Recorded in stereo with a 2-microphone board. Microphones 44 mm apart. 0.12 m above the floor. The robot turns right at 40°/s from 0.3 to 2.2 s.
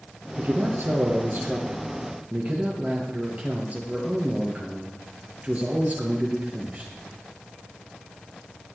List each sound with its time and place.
0.4 s a man speaking: 125° right, 3 m; by 6.9 s 50° right, 3 m